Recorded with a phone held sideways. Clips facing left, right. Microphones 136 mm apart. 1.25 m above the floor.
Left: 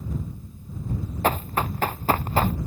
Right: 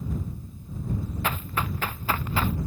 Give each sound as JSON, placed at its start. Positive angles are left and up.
{"t": 1.2, "sound": "running footsteps", "side_deg": 40}